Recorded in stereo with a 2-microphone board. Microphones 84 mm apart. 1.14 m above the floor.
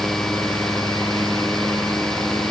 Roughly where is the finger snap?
I don't hear a finger snap.